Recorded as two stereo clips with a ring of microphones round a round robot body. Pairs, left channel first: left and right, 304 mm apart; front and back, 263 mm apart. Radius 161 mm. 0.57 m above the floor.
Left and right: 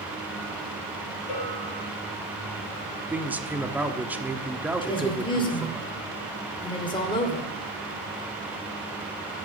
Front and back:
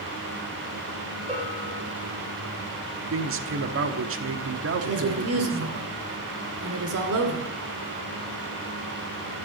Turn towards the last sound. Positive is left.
turn(degrees=165)